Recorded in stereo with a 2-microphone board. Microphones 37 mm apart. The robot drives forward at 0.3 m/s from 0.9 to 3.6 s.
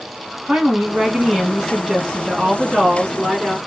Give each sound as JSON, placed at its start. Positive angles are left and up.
{"t": 0.5, "sound": "a woman speaking", "side_deg": -20, "distance_m": 1.1}